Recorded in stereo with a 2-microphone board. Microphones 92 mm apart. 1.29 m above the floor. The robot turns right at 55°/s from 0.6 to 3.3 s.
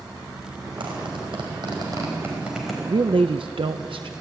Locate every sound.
0.8 s a zipper: 75° right (ahead or behind), 5.5 m; by 2.8 s 5° left (ahead or behind), 5.5 m
2.9 s a woman speaking: 60° right (ahead or behind), 0.7 m; by 4.1 s 80° right, 0.7 m